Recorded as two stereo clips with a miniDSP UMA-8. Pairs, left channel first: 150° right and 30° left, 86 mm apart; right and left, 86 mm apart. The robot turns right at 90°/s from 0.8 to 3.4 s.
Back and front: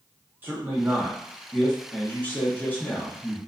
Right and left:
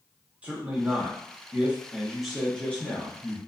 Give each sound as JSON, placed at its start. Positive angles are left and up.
{"t": 0.4, "sound": "a man speaking", "azimuth_deg": 45, "distance_m": 0.7}